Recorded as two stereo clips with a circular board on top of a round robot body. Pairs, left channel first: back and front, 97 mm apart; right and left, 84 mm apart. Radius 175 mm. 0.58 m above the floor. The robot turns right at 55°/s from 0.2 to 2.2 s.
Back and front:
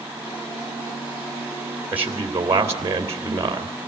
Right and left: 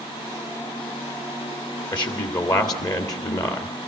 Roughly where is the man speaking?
Right.